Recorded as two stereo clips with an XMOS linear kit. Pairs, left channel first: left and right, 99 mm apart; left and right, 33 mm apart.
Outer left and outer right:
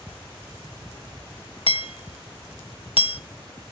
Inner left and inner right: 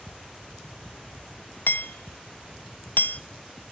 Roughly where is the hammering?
Left.